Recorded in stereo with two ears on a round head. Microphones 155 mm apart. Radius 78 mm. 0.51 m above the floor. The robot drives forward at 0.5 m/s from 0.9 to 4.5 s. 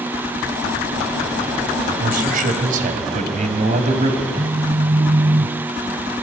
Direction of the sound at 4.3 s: 25° right (ahead or behind).